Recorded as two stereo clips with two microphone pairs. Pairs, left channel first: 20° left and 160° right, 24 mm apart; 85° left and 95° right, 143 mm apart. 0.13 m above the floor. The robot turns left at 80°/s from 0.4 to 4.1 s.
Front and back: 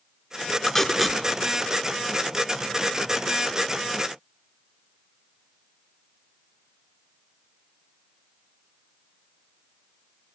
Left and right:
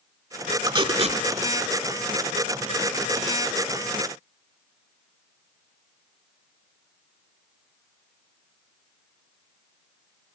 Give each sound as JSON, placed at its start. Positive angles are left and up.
{"t": 0.7, "sound": "tape being pulled", "azimuth_deg": -45, "distance_m": 0.5}